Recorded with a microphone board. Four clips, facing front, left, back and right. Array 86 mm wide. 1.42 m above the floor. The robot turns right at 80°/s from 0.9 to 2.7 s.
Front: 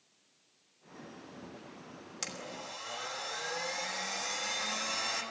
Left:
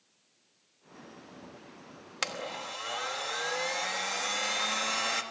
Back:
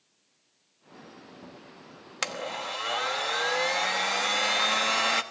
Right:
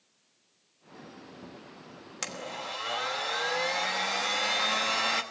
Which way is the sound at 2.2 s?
155° left.